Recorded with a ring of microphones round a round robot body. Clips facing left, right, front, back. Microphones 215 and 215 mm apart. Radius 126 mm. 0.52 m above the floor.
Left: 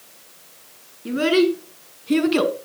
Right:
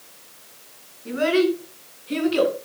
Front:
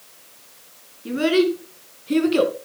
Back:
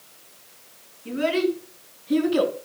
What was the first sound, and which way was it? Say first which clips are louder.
A child speaking: left 2 dB, front 5 dB; 45° left.